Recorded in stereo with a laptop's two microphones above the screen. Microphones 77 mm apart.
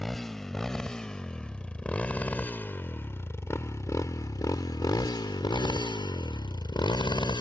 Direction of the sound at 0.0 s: 5° left (ahead or behind).